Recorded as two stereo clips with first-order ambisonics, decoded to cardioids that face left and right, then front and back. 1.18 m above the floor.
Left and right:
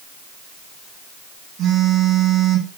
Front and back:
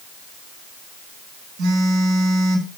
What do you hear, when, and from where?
1.6 s a phone buzzing: 155° right, 8 m